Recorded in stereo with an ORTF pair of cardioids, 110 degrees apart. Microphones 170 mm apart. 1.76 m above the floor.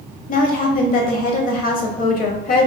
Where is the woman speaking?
55° left, 0.9 m.